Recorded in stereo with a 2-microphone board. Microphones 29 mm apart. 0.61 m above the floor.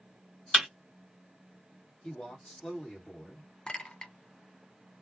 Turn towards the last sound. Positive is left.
turn(degrees=25)  # may be behind; listen again after turning